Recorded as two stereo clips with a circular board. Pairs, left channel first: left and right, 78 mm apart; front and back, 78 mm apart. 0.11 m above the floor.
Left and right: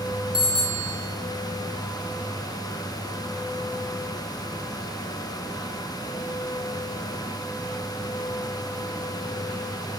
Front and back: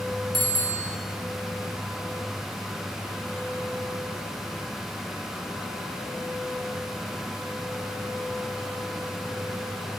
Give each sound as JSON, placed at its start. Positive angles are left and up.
{"t": 0.3, "sound": "a bicycle bell", "azimuth_deg": 85, "distance_m": 7.5}